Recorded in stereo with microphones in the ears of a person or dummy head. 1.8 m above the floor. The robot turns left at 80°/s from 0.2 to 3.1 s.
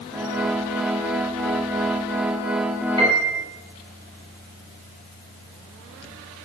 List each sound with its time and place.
3.0 s a piano: 25° right (ahead or behind), 1.1 m; by 3.4 s 35° right (ahead or behind), 1.1 m